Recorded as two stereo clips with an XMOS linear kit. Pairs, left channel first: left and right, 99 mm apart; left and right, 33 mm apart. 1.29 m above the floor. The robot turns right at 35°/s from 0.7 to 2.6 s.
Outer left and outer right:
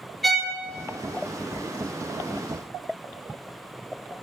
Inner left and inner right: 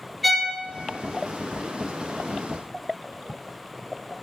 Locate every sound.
0.2 s a violin: centre (ahead or behind), 0.9 m